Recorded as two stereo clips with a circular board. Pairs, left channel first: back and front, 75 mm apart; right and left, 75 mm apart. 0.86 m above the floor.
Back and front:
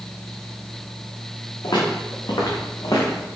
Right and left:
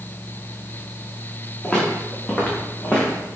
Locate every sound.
1.6 s footsteps: 155° right, 4 m; by 3.3 s 150° right, 2.5 m